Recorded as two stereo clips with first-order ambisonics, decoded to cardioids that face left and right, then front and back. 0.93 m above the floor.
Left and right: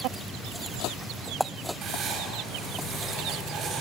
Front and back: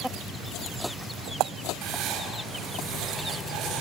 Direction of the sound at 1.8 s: 145° right.